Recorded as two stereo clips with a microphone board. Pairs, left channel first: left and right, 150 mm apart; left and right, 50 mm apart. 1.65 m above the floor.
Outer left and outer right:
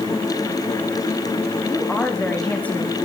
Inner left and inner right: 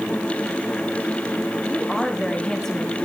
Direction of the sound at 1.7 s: 10° left (ahead or behind).